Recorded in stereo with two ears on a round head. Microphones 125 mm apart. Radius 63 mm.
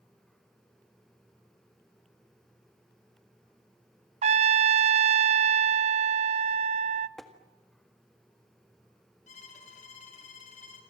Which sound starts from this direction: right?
A trumpet, at 4.2 s.